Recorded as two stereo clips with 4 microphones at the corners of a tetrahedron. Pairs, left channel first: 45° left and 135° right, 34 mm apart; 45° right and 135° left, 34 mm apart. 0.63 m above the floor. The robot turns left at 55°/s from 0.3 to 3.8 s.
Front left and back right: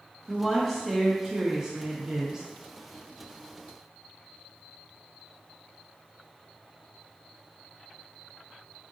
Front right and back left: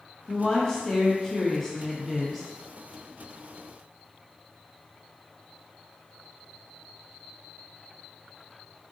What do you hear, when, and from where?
0.3 s a woman speaking: 15° right, 0.5 m; by 2.5 s 130° right, 0.5 m